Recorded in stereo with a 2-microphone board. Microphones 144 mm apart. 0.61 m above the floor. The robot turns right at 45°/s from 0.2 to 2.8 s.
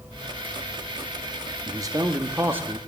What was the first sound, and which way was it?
A man speaking, 25° right (ahead or behind).